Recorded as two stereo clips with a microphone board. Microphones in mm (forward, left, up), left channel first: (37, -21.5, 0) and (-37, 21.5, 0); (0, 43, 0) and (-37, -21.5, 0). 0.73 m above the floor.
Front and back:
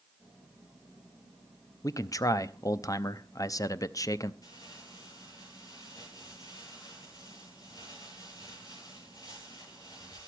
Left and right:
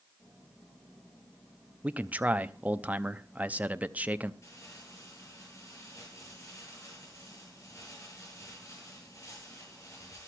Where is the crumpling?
10° left, 10 m.